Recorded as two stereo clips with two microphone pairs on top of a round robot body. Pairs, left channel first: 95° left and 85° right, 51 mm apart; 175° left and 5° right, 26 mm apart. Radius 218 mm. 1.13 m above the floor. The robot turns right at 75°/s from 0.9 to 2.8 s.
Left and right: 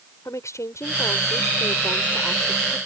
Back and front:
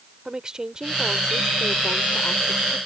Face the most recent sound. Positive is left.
turn(degrees=-155)